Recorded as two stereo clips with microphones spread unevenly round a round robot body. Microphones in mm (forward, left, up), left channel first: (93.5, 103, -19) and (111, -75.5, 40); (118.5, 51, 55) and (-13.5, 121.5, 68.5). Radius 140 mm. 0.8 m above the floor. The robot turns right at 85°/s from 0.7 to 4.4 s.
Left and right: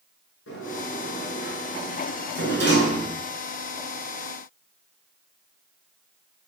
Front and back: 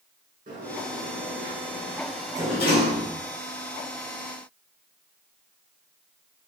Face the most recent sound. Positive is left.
turn(degrees=80)